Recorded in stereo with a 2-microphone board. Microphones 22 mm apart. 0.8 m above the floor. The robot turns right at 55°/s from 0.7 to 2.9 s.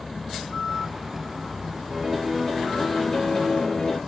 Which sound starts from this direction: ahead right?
A piano, at 1.9 s.